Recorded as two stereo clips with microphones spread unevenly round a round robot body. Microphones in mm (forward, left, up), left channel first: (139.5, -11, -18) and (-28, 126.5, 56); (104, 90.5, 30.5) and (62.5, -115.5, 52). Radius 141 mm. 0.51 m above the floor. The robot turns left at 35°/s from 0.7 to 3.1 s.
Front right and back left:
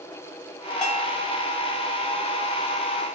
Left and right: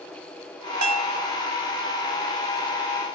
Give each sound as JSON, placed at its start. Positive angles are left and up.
{"t": 0.8, "sound": "a bell", "azimuth_deg": -130, "distance_m": 0.6}